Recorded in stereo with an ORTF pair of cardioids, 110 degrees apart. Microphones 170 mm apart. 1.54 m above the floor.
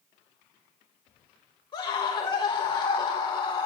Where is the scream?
30° left, 4 m.